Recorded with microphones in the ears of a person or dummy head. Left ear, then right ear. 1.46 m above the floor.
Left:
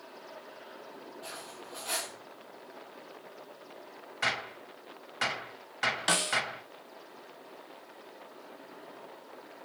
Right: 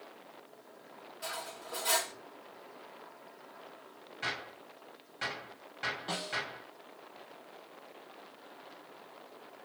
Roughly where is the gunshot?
Left.